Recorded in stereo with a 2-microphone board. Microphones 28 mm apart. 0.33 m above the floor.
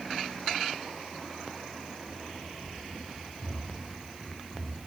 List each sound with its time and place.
2.0 s running footsteps: 15° right (ahead or behind), 5 m; by 4.8 s 15° left (ahead or behind), 4.5 m